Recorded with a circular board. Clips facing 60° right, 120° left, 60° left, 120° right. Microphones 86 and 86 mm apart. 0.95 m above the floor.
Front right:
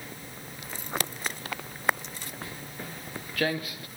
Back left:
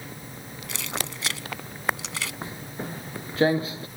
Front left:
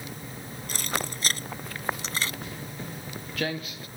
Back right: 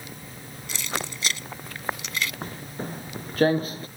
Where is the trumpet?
No trumpet in this recording.